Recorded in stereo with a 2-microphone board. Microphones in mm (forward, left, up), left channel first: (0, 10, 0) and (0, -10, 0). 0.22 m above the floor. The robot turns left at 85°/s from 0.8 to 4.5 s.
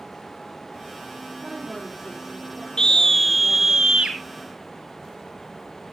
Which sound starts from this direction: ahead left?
A scream, at 2.8 s.